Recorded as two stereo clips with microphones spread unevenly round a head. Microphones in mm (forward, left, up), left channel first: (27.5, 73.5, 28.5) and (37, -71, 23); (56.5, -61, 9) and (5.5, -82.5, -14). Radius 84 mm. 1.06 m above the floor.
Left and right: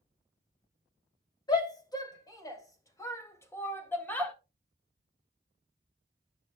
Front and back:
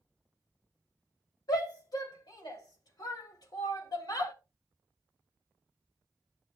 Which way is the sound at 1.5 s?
30° left.